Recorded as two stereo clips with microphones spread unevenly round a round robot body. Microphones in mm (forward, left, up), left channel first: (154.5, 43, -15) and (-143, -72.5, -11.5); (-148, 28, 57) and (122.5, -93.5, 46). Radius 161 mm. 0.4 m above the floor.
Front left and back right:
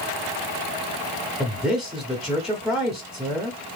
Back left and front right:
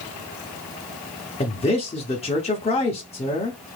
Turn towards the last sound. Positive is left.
turn(degrees=115)